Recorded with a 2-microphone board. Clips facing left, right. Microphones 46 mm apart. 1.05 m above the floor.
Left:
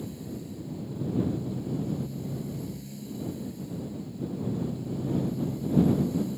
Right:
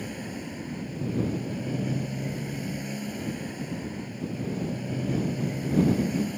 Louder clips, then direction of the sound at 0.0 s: Right 3 dB; 60° right (ahead or behind).